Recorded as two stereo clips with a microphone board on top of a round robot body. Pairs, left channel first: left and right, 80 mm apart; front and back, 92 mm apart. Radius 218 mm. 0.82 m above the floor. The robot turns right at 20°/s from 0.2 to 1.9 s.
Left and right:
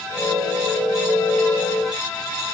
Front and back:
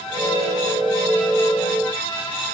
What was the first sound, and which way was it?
Only background noise.